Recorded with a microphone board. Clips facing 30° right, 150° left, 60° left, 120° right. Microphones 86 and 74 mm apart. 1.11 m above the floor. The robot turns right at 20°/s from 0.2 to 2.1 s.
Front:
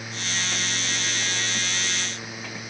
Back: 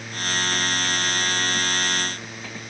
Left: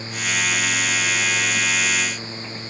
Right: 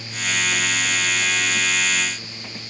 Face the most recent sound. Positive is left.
No sound to turn to.